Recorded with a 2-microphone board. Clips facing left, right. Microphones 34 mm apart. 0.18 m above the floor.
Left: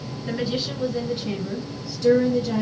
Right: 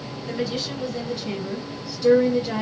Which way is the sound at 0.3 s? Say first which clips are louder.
Left 1 dB; 30° left (ahead or behind).